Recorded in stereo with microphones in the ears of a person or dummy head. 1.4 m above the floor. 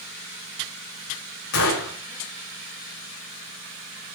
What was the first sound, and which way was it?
A gunshot, 80° left.